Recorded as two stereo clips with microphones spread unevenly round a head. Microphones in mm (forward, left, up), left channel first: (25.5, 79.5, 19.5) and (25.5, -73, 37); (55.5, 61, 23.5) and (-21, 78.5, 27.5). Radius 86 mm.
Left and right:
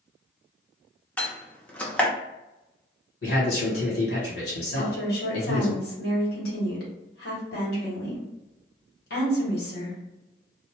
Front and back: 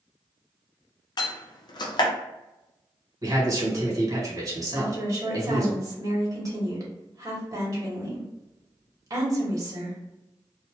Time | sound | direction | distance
1.2 | a door slam | 5° left | 0.6 m
3.2 | a man speaking | 130° left | 1.6 m
4.8 | a woman speaking | 125° left | 1.5 m